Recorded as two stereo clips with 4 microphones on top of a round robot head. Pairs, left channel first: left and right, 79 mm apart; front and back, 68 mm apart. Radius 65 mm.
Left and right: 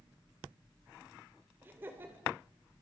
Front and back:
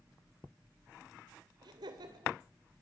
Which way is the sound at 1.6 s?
160° right.